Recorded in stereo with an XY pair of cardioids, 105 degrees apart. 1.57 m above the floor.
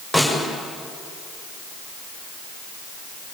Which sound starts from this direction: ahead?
A snare drum, at 0.1 s.